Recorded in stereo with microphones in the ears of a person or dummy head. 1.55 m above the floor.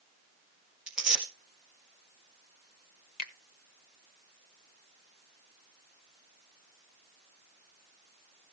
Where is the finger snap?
45° left (ahead or behind), 1.1 m.